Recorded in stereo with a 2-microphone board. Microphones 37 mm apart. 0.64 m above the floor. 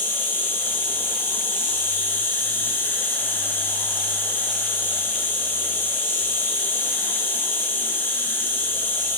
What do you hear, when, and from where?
0.0 s an insect: 65° left (ahead or behind), 1.5 m